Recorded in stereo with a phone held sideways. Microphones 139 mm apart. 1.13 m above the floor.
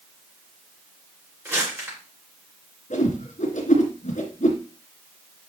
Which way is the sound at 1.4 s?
15° right (ahead or behind).